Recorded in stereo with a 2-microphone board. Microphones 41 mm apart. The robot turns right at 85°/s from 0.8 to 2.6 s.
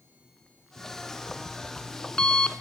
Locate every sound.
0.8 s an alarm clock: 10° right (ahead or behind), 0.8 m; by 2.6 s 20° left (ahead or behind), 0.8 m